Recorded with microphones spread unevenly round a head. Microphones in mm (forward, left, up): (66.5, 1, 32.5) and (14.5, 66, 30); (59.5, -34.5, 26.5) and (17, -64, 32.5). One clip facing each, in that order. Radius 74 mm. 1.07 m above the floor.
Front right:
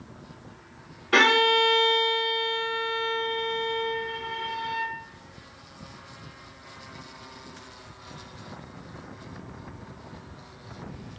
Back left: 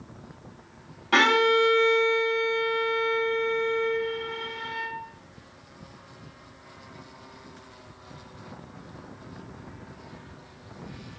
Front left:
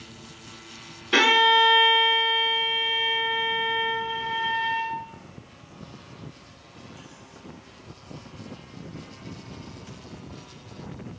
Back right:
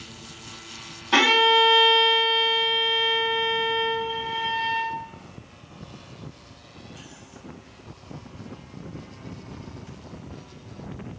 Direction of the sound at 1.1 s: 165° left.